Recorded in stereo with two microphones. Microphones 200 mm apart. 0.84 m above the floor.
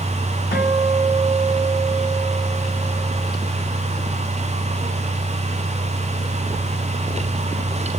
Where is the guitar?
60° left (ahead or behind), 2.5 m.